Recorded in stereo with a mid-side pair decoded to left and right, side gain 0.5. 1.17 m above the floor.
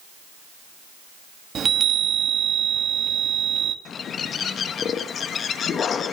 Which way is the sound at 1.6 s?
45° right.